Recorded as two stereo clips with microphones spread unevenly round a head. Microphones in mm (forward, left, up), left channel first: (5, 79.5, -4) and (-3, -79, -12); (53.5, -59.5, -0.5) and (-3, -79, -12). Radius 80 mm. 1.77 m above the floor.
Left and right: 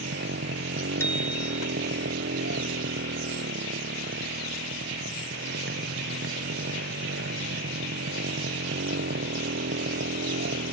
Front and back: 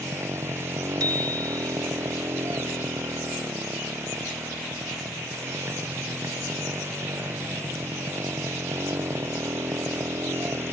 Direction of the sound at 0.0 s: 115° right.